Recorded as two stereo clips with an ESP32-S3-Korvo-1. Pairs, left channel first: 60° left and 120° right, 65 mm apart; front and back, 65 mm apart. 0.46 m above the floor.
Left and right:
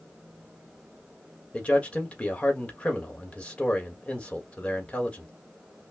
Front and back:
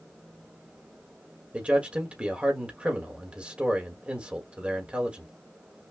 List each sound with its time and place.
1.5 s a man speaking: 120° left, 1.6 m